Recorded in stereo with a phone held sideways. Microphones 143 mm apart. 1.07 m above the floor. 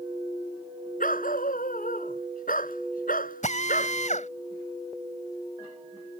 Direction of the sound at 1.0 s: 80° left.